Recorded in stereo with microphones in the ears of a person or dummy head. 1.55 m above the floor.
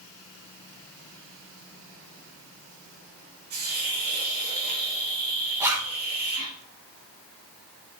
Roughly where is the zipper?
Centre.